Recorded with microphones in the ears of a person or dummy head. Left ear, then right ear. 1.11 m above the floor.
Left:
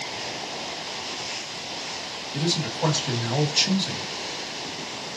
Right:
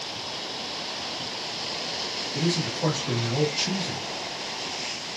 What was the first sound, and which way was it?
A man speaking, 50° left (ahead or behind).